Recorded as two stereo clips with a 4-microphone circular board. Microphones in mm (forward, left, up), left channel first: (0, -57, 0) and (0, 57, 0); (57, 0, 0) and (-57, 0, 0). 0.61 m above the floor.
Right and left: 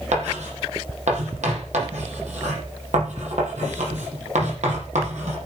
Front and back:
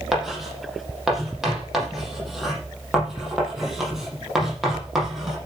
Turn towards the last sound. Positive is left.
turn(degrees=90)